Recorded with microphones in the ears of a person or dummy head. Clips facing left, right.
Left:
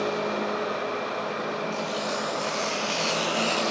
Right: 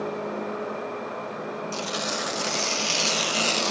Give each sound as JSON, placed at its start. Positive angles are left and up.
{"t": 1.7, "sound": "tearing paper", "side_deg": -65, "distance_m": 1.3}